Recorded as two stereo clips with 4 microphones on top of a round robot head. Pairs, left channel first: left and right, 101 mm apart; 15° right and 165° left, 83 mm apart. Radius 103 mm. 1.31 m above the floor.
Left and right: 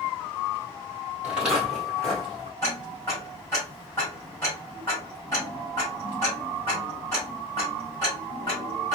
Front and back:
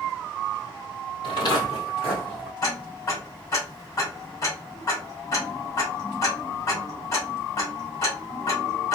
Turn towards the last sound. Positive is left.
turn(degrees=25)